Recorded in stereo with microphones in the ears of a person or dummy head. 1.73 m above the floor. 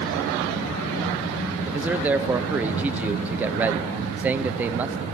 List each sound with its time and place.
1.7 s a man speaking: 10° right (ahead or behind), 0.9 m